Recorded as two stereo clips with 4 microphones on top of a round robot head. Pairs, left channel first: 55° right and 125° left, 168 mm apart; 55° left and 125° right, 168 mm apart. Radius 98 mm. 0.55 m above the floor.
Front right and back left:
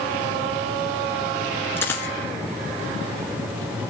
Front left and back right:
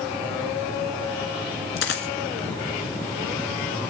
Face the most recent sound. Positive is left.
turn(degrees=25)